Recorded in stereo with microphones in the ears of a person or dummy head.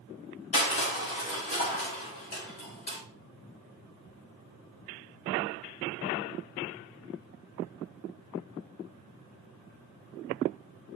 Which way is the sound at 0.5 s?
35° left (ahead or behind).